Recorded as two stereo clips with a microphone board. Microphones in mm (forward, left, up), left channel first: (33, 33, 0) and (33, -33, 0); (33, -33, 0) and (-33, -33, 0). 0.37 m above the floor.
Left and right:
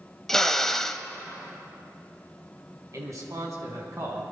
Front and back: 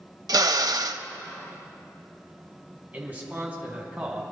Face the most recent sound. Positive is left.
turn(degrees=-115)